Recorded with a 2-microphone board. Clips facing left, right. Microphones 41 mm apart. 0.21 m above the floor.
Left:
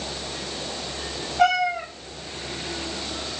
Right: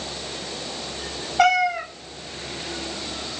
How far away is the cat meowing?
About 0.7 m.